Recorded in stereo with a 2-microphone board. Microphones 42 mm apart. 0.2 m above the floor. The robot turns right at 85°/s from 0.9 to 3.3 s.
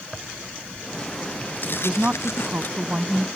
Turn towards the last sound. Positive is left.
turn(degrees=-20)